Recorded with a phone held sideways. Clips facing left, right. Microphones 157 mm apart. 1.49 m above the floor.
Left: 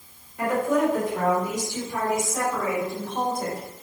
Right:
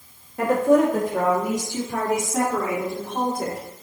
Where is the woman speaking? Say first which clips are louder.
Right 5 dB; 70° right (ahead or behind), 2.5 m; by 3.6 s 85° right, 4.5 m.